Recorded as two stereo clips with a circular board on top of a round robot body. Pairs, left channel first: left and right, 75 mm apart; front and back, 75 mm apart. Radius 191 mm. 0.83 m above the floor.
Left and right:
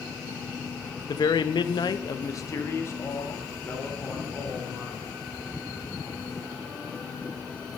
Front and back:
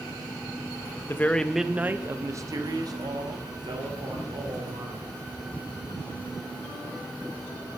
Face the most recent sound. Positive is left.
turn(degrees=165)